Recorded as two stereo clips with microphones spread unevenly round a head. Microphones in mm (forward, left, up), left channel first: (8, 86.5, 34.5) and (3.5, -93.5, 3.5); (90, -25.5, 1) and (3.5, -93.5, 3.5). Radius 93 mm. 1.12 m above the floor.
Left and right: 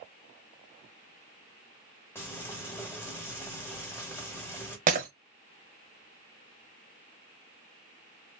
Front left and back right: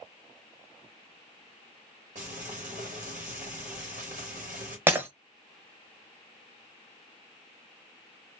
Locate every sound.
2.1 s frying: 170° left, 2.0 m
4.9 s breaking glass: 95° right, 0.9 m